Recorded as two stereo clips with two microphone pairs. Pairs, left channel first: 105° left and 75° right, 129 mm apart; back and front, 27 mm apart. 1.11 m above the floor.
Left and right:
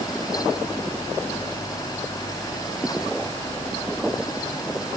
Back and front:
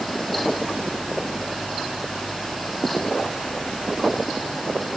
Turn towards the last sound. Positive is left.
No sound to turn to.